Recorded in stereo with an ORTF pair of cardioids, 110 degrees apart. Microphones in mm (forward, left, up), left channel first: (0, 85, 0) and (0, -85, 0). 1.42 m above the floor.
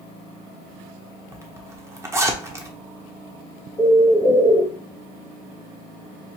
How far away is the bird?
About 0.9 m.